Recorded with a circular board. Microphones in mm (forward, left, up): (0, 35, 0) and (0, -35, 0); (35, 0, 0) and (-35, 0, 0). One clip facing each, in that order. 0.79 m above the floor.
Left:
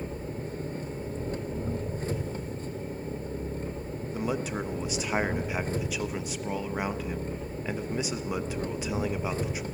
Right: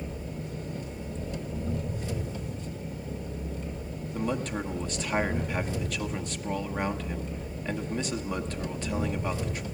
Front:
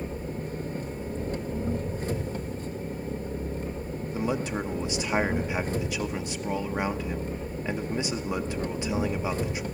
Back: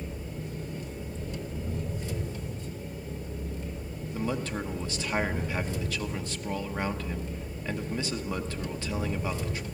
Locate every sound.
0.0 s an engine running: 40° left, 1.9 m
4.1 s a man speaking: 30° left, 0.9 m